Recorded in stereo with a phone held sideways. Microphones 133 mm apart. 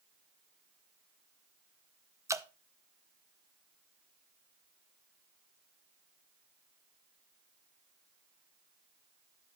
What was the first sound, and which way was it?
Dripping, 20° right (ahead or behind).